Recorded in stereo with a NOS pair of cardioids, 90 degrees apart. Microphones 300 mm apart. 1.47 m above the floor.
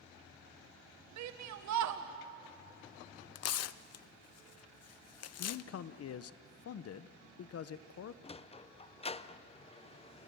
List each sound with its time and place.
1.2 s a shout: 65° right, 1.5 m
3.4 s tearing paper: 55° left, 0.7 m
5.4 s a man speaking: 55° left, 0.9 m
8.2 s a sliding door: 20° left, 0.7 m